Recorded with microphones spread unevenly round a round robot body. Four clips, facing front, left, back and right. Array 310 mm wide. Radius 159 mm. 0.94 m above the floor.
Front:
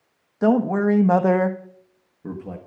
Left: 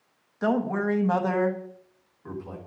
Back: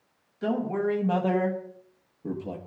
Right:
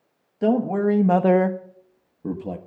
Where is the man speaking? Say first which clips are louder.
Right 5 dB, front 8 dB; 25° right, 1.4 m; by 2.6 s 95° right, 1.5 m.